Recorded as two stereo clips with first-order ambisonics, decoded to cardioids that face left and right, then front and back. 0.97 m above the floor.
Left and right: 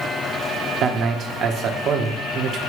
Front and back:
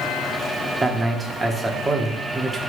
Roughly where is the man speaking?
Right.